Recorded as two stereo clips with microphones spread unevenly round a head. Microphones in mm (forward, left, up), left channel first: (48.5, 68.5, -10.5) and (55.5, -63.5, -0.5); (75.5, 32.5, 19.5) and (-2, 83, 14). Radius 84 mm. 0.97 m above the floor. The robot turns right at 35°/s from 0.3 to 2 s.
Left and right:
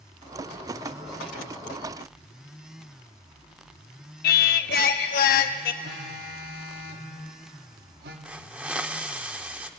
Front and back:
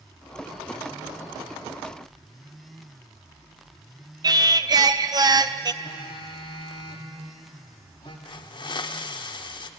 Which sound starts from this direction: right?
A phone buzzing, at 5.8 s.